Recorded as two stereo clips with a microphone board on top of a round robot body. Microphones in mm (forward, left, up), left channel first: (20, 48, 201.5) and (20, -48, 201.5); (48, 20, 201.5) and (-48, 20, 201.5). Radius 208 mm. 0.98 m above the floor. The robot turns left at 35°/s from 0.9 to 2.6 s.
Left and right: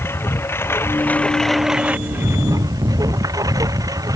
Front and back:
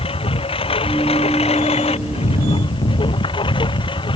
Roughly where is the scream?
No scream in this recording.